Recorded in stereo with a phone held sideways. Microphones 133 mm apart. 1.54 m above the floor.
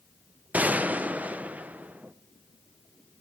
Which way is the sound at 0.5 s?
10° right (ahead or behind).